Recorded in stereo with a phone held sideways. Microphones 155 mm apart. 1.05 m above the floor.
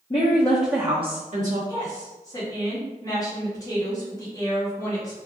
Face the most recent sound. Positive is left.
turn(degrees=25)  # may be behind; listen again after turning